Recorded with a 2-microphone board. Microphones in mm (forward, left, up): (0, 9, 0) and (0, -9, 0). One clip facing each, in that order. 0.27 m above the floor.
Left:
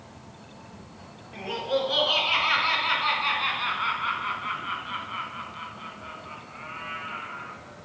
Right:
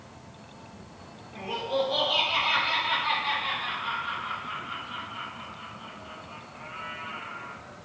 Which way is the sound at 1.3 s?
45° left (ahead or behind).